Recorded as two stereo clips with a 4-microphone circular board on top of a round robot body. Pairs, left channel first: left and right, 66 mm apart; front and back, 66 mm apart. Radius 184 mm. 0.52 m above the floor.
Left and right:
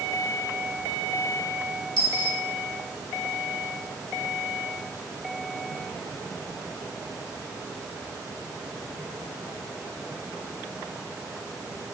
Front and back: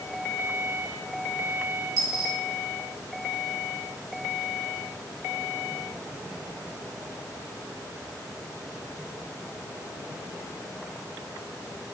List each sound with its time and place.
2.0 s a dropped coin: 150° right, 3.5 m